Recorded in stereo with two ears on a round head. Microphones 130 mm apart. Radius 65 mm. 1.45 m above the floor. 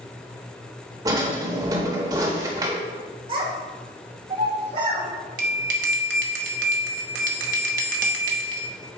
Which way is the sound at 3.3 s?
40° right (ahead or behind).